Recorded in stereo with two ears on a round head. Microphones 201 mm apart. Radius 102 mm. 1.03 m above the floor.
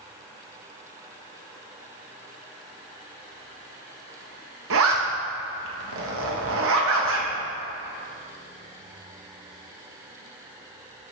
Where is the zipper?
65° right (ahead or behind), 1.3 m.